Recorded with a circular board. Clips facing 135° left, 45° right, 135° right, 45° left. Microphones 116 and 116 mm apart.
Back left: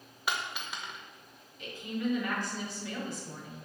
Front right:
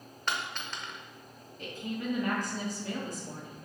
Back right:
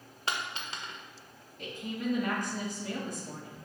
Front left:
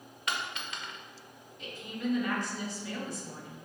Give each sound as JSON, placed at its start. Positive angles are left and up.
{"t": 0.3, "sound": "a dropped coin", "azimuth_deg": -150, "distance_m": 1.0}
{"t": 1.6, "sound": "a woman speaking", "azimuth_deg": -95, "distance_m": 1.8}